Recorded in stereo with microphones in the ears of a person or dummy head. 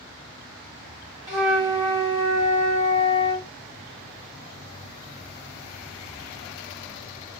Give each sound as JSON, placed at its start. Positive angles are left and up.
{"t": 1.3, "sound": "a flute", "side_deg": 25, "distance_m": 1.6}